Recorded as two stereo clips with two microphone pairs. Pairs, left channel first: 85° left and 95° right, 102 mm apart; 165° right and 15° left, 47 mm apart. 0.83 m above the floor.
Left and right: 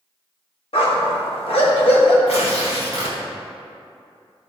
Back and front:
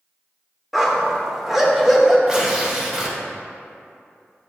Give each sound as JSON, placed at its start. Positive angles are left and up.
{"t": 0.7, "sound": "a dog barking", "azimuth_deg": 100, "distance_m": 0.8}
{"t": 2.3, "sound": "tearing paper", "azimuth_deg": 90, "distance_m": 1.1}